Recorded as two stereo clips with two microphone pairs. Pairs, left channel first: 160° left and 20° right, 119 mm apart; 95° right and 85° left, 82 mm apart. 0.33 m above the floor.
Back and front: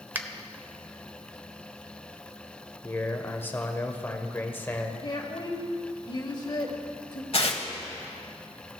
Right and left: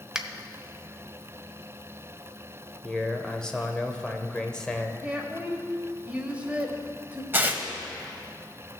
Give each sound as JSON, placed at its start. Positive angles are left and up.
{"t": 0.1, "sound": "a finger snap", "azimuth_deg": 5, "distance_m": 0.7}
{"t": 2.8, "sound": "a man speaking", "azimuth_deg": -155, "distance_m": 0.9}
{"t": 5.0, "sound": "a woman speaking", "azimuth_deg": 150, "distance_m": 1.5}
{"t": 7.3, "sound": "tearing paper", "azimuth_deg": 145, "distance_m": 0.9}